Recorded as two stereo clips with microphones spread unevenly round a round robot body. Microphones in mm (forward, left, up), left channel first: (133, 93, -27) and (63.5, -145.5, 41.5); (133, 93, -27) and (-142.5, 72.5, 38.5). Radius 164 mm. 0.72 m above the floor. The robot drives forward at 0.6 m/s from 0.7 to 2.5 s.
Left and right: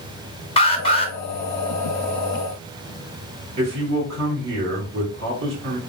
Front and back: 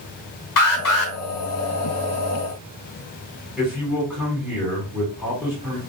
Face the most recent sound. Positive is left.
turn(degrees=-85)